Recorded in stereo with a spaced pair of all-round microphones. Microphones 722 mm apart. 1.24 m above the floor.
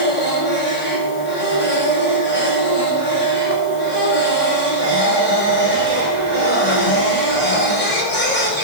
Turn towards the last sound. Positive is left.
turn(degrees=90)